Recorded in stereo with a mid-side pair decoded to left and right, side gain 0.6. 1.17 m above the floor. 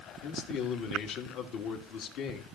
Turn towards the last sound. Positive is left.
turn(degrees=65)